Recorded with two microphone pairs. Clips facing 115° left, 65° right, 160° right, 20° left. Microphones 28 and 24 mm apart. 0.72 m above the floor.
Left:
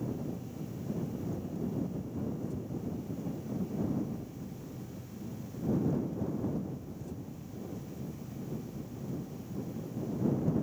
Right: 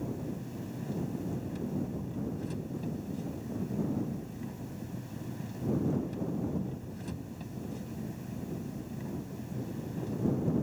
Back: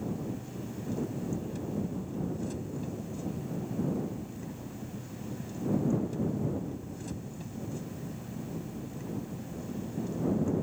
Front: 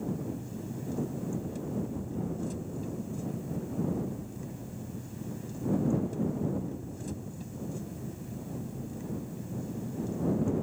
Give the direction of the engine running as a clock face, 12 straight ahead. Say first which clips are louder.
Even, front 1 dB; 3 o'clock.